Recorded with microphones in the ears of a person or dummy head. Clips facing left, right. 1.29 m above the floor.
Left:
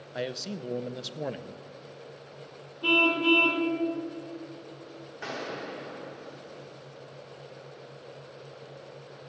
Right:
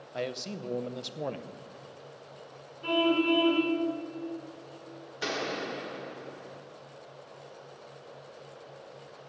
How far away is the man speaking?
About 0.5 m.